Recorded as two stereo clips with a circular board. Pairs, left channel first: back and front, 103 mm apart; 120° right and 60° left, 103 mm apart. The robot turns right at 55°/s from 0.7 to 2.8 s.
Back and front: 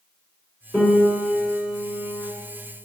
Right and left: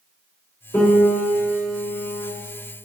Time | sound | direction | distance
0.7 | a piano | 105° right | 1.8 m